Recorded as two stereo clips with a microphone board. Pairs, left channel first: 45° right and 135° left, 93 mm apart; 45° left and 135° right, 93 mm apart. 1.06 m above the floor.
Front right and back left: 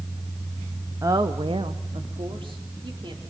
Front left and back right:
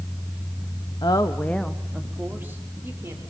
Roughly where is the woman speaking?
Left.